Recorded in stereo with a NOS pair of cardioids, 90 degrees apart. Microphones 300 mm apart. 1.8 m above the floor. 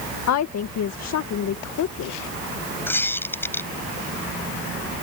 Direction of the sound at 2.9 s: 5° left.